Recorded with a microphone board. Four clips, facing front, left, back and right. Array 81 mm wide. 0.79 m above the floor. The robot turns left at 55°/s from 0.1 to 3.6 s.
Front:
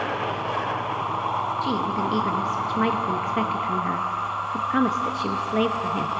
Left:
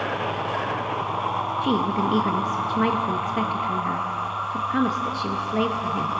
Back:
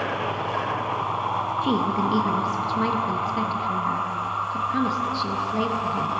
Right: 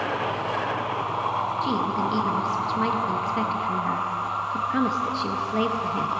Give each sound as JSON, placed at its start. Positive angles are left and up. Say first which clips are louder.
{"t": 1.6, "sound": "a woman speaking", "louder": "left 5 dB, back 2 dB", "azimuth_deg": 120, "distance_m": 0.7}